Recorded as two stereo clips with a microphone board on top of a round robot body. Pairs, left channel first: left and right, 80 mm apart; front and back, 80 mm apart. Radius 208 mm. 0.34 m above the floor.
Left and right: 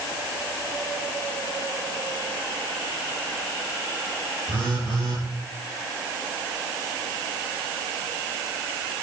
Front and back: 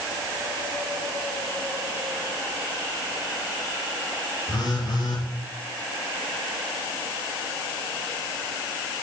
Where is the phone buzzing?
40° right, 4.5 m.